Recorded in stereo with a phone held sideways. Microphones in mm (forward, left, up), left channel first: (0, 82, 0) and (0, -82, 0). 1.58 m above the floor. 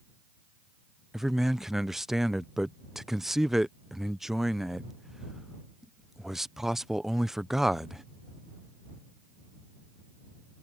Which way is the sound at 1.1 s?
Centre (ahead or behind).